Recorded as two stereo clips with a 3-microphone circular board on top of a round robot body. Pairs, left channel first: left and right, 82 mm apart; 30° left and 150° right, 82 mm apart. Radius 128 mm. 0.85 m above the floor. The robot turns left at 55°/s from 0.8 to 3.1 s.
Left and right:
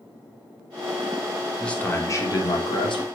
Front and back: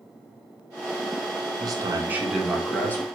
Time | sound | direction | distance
1.6 | a man speaking | 170° left | 3.5 m